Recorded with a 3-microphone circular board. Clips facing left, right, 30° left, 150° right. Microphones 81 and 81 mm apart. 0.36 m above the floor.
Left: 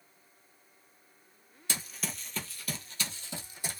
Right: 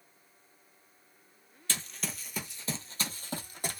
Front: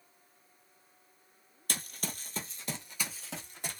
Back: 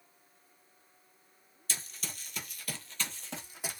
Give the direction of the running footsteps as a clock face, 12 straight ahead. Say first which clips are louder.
Even, front 4 dB; 11 o'clock.